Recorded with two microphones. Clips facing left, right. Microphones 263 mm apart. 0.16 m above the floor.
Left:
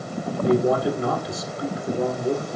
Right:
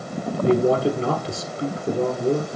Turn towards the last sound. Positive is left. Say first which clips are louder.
# right 2 dB
turn(degrees=-30)  # may be behind; listen again after turning